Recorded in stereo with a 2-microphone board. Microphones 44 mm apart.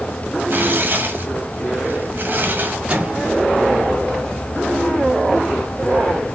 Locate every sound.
0.5 s tearing paper: 45° right (ahead or behind), 1.6 m
2.9 s a microwave: 30° right (ahead or behind), 3 m